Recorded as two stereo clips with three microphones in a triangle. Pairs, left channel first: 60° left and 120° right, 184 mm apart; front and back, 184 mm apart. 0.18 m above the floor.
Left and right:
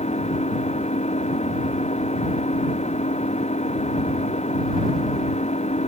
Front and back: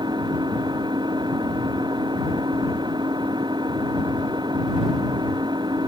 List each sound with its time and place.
0.0 s an engine running: 115° left